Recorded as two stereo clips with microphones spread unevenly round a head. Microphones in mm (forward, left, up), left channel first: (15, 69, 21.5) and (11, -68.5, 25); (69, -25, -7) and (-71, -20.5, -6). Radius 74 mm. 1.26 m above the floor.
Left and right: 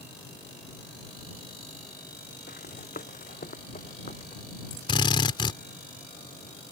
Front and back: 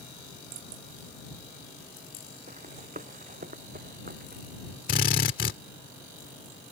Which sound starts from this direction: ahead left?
A drill, at 4.9 s.